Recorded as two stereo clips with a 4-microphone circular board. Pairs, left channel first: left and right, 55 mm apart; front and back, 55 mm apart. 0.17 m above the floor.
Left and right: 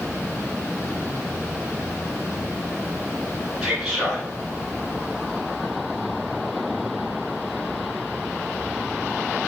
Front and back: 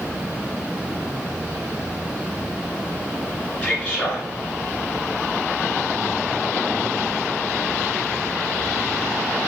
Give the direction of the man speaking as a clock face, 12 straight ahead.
1 o'clock.